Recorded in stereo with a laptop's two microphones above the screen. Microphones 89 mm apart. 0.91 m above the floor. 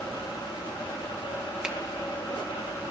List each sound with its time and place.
0.0 s a fan: 70° left (ahead or behind), 1.3 m
1.6 s a finger snap: 10° right (ahead or behind), 0.5 m